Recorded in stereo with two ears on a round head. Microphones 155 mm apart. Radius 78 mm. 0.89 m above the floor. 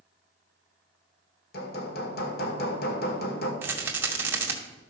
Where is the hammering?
60° left (ahead or behind), 1.7 m.